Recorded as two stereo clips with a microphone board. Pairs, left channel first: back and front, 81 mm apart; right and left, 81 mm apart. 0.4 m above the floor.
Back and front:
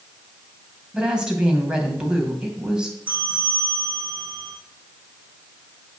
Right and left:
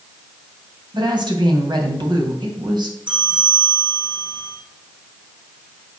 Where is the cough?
I don't hear a cough.